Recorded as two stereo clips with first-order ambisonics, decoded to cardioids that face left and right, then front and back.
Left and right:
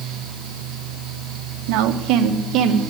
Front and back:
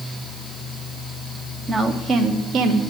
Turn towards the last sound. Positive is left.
turn(degrees=-130)